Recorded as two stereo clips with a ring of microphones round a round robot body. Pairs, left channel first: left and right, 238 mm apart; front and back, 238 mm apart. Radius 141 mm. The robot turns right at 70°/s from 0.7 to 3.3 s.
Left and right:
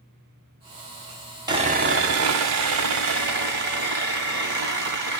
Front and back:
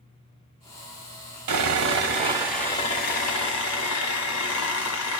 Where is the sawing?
165° right, 1.0 m; by 5.2 s 35° right, 1.0 m.